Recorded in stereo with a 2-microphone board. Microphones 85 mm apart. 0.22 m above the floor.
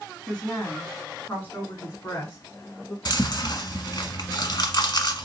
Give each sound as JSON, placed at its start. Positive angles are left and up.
{"t": 0.3, "sound": "a woman speaking", "side_deg": 5, "distance_m": 1.7}
{"t": 3.0, "sound": "chewing", "side_deg": 55, "distance_m": 1.2}